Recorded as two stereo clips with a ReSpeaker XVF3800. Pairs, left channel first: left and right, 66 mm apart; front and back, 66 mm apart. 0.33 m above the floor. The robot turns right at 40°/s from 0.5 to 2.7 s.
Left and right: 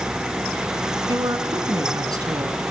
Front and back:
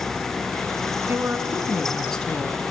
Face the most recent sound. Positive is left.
turn(degrees=-60)